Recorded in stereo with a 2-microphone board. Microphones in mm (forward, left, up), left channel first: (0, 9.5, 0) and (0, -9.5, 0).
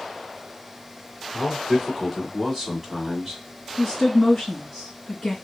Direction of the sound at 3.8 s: 25° left (ahead or behind).